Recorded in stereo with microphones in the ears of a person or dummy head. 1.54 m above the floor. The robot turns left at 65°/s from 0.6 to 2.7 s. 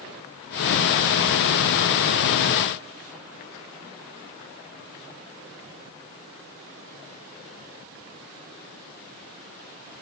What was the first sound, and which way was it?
Only background noise.